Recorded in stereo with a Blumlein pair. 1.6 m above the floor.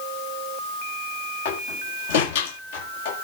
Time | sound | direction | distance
1.4 | a door slam | 50° left | 7 m